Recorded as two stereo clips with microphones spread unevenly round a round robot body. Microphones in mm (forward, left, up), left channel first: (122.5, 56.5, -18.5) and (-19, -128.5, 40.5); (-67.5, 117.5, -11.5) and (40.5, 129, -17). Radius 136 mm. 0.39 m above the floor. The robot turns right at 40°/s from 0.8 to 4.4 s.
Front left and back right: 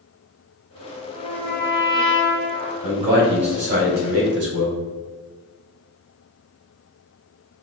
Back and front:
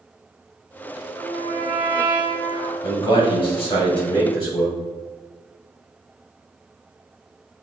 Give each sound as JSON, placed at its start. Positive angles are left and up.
{"t": 1.1, "sound": "a trumpet", "azimuth_deg": -55, "distance_m": 1.5}
{"t": 2.8, "sound": "a man speaking", "azimuth_deg": 160, "distance_m": 1.7}